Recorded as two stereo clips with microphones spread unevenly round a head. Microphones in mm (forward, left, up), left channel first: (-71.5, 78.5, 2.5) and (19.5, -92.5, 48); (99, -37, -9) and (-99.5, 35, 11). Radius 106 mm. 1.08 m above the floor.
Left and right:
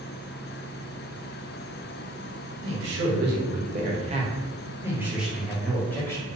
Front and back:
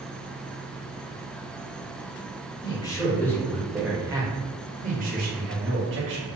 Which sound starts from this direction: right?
A man speaking, at 2.6 s.